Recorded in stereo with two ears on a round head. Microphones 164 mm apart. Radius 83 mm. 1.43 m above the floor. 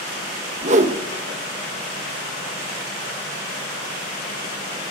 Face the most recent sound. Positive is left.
turn(degrees=-40)  # may be behind; listen again after turning